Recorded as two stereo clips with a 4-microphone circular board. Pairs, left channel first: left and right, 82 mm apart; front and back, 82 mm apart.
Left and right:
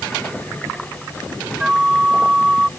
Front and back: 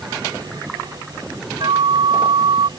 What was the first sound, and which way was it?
A flute, 170° right.